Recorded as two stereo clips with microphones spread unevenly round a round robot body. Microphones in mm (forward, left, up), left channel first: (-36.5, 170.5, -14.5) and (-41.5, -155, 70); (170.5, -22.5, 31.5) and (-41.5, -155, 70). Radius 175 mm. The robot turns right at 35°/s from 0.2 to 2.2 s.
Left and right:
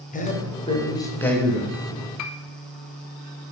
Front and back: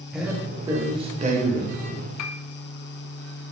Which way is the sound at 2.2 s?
45° left.